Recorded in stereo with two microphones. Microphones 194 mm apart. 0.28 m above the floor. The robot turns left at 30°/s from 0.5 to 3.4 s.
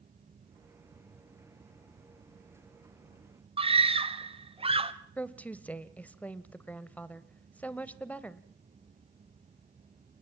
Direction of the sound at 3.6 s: 30° right (ahead or behind).